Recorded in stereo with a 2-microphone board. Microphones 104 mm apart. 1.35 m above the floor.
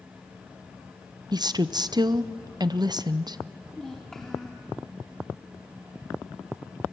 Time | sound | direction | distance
1.3 | a woman speaking | 40° right (ahead or behind) | 0.6 m
3.7 | a child speaking | 5° left (ahead or behind) | 1.6 m